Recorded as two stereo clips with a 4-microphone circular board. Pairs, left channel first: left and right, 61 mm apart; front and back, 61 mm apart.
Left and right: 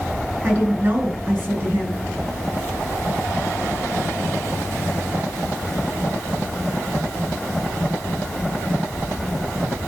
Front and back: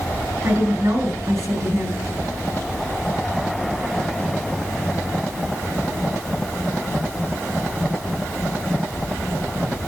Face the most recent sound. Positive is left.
turn(degrees=-150)